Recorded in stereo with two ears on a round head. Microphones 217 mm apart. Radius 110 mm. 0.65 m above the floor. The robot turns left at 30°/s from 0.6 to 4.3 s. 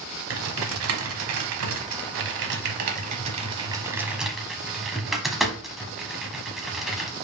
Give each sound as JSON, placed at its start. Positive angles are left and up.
{"t": 0.3, "sound": "typing on a keyboard", "side_deg": -60, "distance_m": 0.9}